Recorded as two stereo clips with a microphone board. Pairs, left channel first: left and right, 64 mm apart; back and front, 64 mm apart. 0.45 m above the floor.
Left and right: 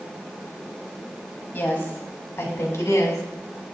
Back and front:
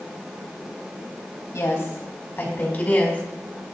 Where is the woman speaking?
145° left, 3 m; by 3.2 s 115° left, 4 m.